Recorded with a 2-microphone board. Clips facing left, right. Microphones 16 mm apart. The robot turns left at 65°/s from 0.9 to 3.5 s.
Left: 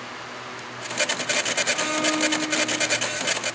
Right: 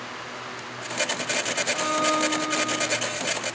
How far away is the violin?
About 2.5 m.